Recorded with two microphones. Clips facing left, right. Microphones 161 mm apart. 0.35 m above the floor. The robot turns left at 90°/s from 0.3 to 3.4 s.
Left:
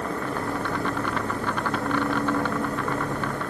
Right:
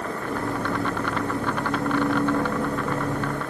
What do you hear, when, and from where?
Only background noise.